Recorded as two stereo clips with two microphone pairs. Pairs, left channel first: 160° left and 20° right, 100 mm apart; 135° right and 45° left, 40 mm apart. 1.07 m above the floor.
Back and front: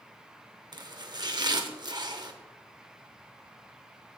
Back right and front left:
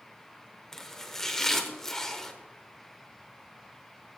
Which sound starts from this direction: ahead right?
Chopping, at 0.7 s.